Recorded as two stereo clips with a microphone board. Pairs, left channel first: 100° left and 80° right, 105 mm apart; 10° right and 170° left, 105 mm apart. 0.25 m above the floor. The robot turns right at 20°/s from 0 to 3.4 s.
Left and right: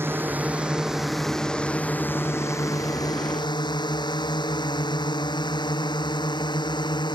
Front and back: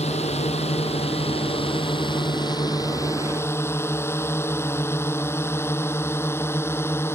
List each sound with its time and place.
0.0 s a drone: 15° right; by 7.2 s 55° left